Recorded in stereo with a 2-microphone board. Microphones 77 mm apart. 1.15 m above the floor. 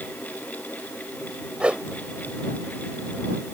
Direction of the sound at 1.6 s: 15° right (ahead or behind).